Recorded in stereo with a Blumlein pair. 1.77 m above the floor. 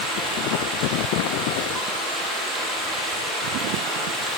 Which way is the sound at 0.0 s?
10° right.